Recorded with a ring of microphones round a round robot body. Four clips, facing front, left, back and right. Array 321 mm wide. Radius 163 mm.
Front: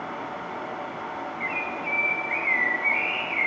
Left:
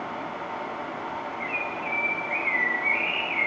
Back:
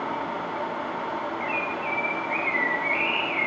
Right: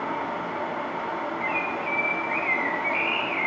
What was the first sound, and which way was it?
A bird, 85° right.